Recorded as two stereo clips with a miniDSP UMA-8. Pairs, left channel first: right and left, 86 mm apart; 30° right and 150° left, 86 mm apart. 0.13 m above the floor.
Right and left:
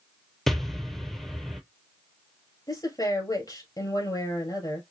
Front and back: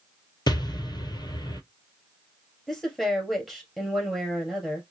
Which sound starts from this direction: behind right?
A woman speaking, at 2.7 s.